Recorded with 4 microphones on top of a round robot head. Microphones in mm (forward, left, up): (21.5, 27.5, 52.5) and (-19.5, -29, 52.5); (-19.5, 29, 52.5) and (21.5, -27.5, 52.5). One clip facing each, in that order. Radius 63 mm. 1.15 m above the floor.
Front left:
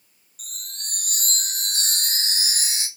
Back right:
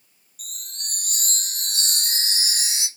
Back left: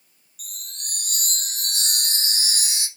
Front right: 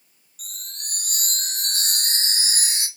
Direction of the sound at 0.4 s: 5° right.